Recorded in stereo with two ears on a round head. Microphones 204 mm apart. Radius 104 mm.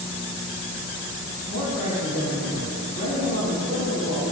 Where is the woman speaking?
60° right (ahead or behind), 3 m.